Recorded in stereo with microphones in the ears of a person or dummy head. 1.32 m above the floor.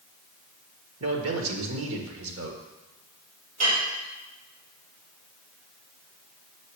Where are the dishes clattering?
45° right (ahead or behind), 3 m.